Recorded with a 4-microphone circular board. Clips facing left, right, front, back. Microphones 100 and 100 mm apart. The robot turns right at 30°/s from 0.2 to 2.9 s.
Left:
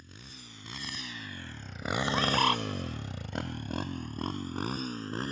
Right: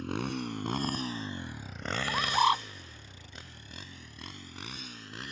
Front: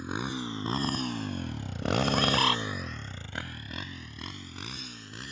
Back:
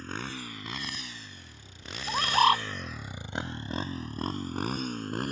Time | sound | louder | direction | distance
0.0 | a motorcycle | right 19 dB, front 4 dB | 75° right | ?
2.1 | a bird | right 2 dB, back 7 dB | 165° right | ?